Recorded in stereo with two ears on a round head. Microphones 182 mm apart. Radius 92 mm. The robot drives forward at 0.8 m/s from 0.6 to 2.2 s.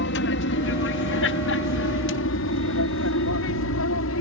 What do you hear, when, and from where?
0.0 s an aircraft: 65° left (ahead or behind); by 4.2 s 75° left (ahead or behind)